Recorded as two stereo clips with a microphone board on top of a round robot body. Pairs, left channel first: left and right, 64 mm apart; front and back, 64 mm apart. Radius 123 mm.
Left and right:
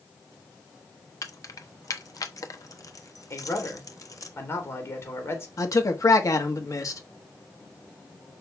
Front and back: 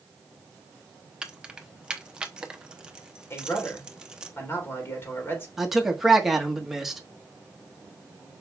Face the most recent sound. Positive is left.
turn(degrees=95)